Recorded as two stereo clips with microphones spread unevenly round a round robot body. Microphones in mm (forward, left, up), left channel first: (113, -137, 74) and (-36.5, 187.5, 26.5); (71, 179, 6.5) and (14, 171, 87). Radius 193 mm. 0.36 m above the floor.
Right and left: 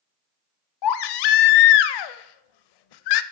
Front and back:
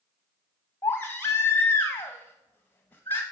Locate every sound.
0.8 s a baby crying: 40° right, 0.5 m